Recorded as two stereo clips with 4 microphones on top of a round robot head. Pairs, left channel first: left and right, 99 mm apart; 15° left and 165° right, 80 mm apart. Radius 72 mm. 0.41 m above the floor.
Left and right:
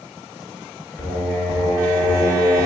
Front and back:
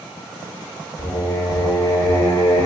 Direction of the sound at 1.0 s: 25° left.